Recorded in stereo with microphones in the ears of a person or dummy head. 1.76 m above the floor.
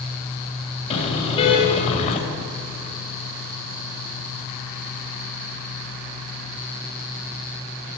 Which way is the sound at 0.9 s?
30° left (ahead or behind).